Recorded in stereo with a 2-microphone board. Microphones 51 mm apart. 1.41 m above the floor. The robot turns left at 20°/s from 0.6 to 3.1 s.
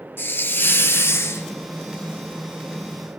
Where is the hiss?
45° left (ahead or behind), 1.1 m; by 1.5 s 60° left (ahead or behind), 1.1 m.